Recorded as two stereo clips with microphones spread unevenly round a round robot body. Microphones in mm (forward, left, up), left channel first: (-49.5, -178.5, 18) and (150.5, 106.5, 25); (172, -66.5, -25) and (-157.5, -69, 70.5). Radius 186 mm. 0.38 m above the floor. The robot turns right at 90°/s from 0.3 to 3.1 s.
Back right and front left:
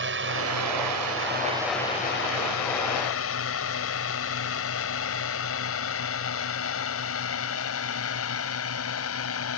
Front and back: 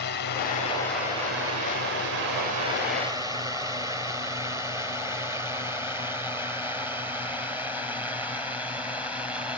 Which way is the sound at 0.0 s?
15° left.